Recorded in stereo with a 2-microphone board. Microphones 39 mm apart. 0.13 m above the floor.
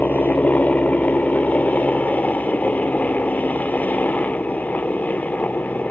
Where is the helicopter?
45° left (ahead or behind).